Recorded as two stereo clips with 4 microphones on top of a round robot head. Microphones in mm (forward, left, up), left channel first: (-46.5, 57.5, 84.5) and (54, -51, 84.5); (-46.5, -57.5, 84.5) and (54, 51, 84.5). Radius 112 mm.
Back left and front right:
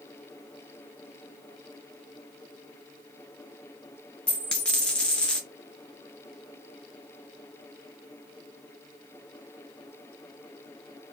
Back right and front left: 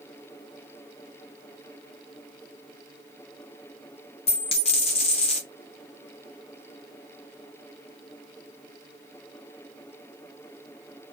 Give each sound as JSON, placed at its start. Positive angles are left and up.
{"t": 4.3, "sound": "a dropped coin", "azimuth_deg": -145, "distance_m": 0.6}